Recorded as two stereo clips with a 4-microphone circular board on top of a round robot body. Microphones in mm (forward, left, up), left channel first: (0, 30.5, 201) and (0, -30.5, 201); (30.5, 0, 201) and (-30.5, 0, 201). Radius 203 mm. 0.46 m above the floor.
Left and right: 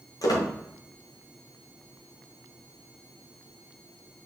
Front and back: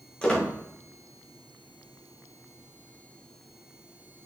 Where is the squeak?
75° left, 1.5 m.